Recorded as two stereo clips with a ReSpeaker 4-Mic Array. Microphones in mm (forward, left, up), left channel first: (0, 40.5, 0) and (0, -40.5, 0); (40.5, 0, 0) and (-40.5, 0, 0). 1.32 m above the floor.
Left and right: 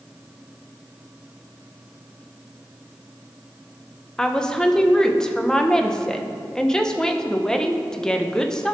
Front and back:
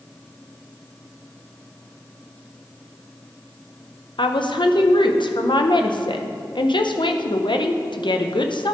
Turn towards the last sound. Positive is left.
turn(degrees=5)